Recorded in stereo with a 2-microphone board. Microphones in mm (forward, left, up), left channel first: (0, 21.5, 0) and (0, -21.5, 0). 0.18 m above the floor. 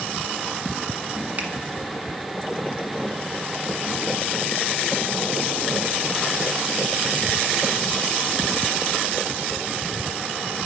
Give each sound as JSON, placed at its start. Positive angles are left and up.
{"t": 1.4, "sound": "a finger snap", "side_deg": -35, "distance_m": 1.3}